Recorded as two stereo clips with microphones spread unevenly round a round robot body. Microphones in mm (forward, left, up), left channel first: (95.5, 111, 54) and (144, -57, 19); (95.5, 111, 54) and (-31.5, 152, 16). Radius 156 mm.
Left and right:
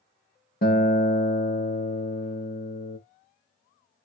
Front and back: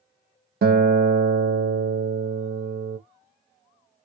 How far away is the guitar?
About 0.6 m.